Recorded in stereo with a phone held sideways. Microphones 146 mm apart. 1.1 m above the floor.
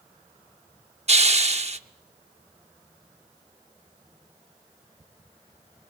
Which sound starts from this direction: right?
A hiss, at 1.1 s.